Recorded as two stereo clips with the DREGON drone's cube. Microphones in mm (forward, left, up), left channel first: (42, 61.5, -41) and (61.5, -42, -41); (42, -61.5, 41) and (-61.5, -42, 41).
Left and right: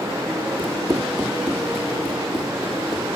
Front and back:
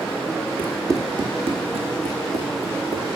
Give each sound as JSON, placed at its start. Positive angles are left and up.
{"t": 0.6, "sound": "running footsteps", "azimuth_deg": -115, "distance_m": 1.2}